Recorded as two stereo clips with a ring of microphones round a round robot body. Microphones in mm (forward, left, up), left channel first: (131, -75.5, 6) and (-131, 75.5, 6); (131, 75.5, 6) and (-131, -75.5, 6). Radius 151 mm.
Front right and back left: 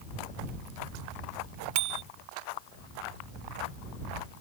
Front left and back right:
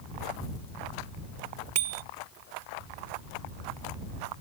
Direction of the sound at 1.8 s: 145° left.